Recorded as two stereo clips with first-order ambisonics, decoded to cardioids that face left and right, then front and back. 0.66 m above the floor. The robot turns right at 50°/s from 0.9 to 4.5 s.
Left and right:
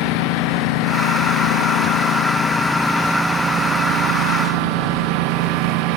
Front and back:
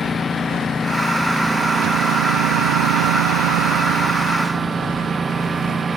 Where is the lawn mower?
75° left; by 6.0 s 105° right.